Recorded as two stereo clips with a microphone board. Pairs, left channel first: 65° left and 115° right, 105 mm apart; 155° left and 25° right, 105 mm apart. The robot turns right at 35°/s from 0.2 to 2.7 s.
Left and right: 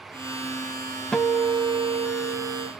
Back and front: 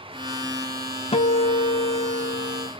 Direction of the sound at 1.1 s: 150° left.